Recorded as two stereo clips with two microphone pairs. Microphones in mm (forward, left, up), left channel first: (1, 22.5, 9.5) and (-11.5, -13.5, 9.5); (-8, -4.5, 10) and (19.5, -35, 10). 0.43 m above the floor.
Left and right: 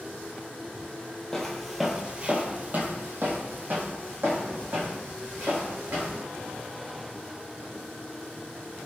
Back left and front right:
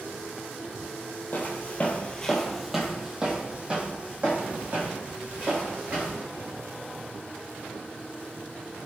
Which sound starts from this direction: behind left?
Footsteps, at 1.3 s.